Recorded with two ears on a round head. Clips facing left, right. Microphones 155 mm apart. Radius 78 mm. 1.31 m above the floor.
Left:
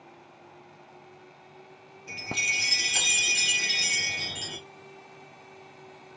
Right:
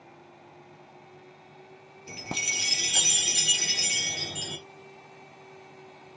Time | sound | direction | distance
2.1 | a chime | 40° right (ahead or behind) | 1.4 m